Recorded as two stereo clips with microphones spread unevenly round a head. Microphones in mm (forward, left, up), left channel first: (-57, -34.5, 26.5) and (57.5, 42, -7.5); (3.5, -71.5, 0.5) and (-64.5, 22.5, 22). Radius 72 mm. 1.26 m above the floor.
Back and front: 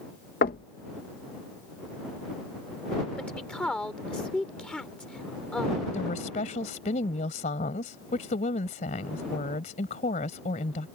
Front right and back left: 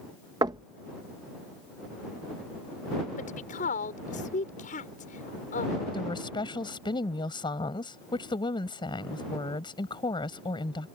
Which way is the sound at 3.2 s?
65° right.